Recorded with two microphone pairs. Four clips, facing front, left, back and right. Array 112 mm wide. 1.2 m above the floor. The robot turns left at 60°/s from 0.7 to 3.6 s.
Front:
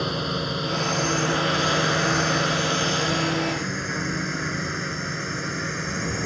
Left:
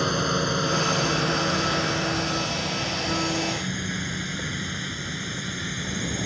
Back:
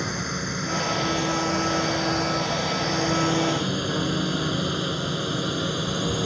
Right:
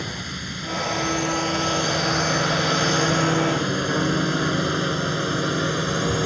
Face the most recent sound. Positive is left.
turn(degrees=-105)